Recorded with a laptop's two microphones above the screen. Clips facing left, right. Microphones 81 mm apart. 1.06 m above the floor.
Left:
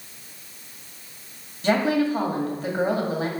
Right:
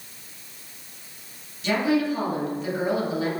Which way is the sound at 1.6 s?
40° left (ahead or behind).